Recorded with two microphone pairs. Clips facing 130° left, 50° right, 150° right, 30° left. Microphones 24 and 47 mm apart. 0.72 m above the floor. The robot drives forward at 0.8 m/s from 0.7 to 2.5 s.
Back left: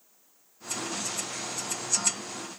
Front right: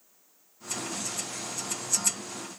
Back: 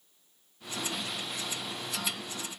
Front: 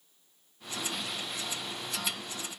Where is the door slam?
I don't hear a door slam.